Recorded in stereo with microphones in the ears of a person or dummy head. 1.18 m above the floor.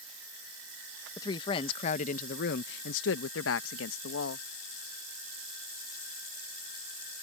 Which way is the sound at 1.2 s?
20° left (ahead or behind).